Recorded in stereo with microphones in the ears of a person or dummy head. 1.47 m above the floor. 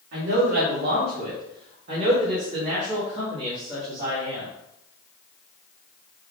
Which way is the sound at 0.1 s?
70° right (ahead or behind).